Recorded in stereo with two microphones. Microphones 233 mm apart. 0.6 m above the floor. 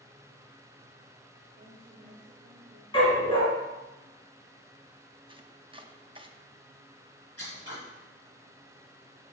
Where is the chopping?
20° right (ahead or behind), 0.6 m.